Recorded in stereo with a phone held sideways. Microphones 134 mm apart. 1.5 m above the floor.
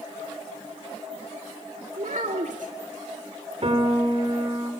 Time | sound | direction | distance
2.0 | a child speaking | 70° right (ahead or behind) | 2.0 m
3.6 | a piano | 45° right (ahead or behind) | 4 m